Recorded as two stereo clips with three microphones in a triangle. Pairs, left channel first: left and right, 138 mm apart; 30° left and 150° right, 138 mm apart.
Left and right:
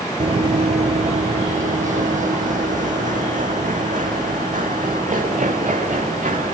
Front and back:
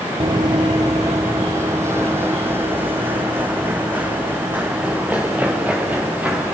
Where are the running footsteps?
110° right, 0.6 m; by 6.5 s 70° right, 3.5 m.